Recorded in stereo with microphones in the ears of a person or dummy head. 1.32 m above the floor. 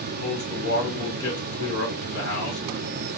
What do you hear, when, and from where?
0.2 s a man speaking: 70° left (ahead or behind), 1.3 m